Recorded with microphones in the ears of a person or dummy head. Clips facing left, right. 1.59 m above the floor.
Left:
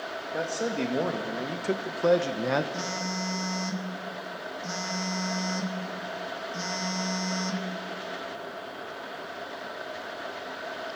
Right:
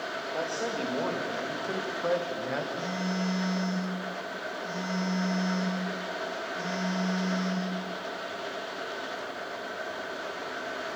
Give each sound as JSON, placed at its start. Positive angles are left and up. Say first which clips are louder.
{"t": 0.3, "sound": "a man speaking", "louder": "left 3 dB", "side_deg": 25, "distance_m": 2.5}
{"t": 2.7, "sound": "a phone buzzing", "louder": "right 2 dB", "side_deg": 75, "distance_m": 2.5}